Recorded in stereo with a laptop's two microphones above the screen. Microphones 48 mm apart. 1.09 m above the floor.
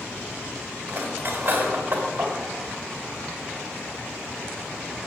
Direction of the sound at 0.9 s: 40° right (ahead or behind).